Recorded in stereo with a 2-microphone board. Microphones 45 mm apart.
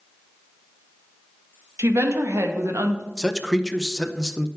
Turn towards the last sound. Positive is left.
turn(degrees=5)  # may be behind; listen again after turning